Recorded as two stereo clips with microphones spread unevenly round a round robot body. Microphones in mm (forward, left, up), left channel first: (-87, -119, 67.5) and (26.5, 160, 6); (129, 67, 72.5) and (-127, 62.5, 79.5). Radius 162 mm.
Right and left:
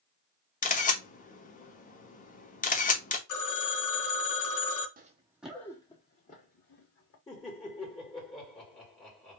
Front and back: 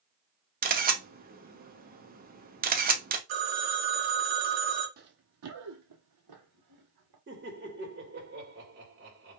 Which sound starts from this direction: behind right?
A phone ringing, at 3.3 s.